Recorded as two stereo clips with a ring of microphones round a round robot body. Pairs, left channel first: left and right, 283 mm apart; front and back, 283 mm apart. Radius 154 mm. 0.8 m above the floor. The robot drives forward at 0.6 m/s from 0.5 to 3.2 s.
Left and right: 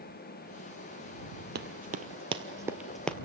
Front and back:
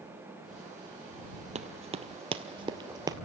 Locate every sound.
1.6 s running footsteps: 125° right, 1.0 m; by 3.1 s 155° left, 0.8 m